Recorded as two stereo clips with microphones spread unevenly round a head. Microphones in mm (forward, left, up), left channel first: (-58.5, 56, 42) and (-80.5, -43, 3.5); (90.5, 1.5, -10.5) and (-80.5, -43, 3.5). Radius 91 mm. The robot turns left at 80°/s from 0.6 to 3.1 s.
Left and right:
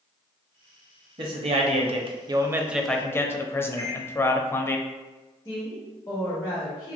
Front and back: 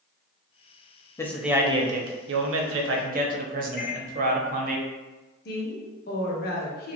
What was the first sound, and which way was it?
A man speaking, 60° right.